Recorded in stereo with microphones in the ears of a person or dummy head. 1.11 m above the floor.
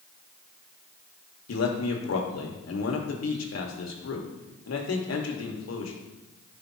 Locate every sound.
1.5 s a man speaking: 75° left (ahead or behind), 1.5 m